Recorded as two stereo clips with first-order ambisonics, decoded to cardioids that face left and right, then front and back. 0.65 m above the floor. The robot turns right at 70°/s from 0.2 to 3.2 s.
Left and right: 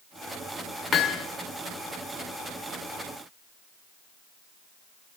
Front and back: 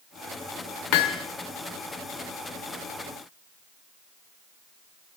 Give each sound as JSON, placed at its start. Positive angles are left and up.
{"t": 0.9, "sound": "hammering", "azimuth_deg": 25, "distance_m": 0.6}